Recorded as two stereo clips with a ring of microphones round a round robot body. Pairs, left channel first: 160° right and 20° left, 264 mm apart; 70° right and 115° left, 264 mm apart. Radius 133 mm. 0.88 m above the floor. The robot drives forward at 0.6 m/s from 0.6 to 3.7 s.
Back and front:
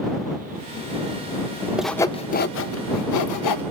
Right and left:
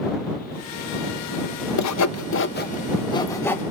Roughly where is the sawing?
Ahead right.